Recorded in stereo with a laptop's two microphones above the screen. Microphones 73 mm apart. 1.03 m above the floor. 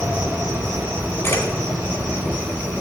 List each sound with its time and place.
0.0 s an insect: 15° right (ahead or behind), 2.5 m
1.2 s a camera shutter: 40° left (ahead or behind), 4 m